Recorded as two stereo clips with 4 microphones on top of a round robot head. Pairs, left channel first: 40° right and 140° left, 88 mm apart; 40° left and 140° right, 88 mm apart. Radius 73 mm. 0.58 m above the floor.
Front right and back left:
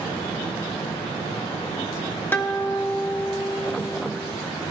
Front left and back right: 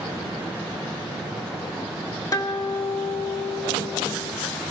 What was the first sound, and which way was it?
A guitar, 20° left.